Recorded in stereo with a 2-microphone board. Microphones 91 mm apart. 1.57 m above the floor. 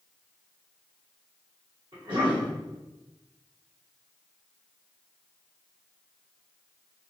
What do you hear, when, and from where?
1.9 s a cough: 65° right (ahead or behind), 1.9 m